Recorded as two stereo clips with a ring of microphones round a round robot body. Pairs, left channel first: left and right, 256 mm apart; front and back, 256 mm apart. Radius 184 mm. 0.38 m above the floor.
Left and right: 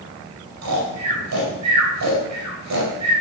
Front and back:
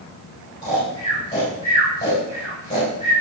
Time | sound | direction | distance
0.6 | snoring | 80° right | 5 m